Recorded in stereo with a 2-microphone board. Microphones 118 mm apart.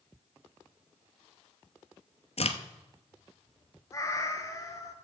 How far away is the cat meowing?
About 1.1 m.